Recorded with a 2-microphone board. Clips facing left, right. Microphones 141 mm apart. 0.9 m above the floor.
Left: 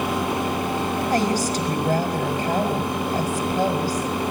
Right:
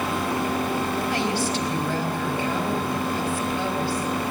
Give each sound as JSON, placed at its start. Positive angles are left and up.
{"t": 1.1, "sound": "a woman speaking", "side_deg": 45, "distance_m": 4.5}